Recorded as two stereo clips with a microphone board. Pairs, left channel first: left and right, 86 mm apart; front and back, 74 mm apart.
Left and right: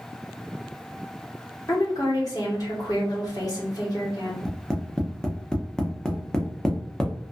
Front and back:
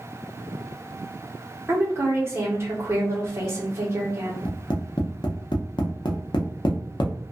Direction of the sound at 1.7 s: 130° left.